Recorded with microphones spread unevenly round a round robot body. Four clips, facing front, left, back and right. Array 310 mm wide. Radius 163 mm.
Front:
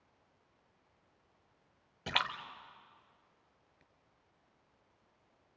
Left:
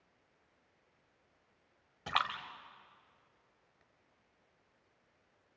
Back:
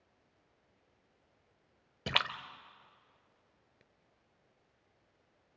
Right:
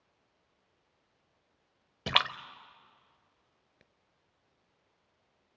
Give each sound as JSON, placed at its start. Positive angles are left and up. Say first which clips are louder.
{"t": 2.1, "sound": "a splash", "louder": "right 3 dB, even", "azimuth_deg": -125, "distance_m": 0.6}